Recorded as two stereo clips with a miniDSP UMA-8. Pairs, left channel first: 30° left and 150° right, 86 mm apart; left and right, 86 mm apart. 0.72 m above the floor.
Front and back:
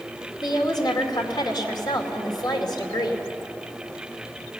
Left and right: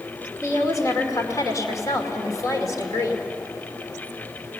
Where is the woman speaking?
50° left, 2.5 m.